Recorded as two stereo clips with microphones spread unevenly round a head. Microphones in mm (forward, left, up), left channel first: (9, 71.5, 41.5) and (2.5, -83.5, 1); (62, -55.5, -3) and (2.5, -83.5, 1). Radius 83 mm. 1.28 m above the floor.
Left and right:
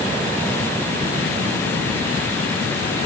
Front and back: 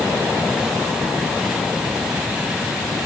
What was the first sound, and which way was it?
Only background noise.